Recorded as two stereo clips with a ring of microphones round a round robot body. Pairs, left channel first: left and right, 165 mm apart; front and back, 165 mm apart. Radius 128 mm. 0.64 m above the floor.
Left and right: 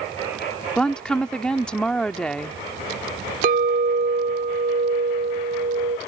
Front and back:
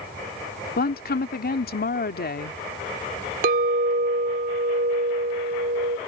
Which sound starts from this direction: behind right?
A clink, at 3.4 s.